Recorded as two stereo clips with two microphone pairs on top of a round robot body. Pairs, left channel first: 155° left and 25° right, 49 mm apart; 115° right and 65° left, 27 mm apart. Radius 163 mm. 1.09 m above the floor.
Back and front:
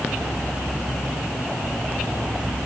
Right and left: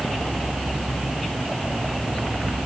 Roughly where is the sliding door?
No sliding door in this recording.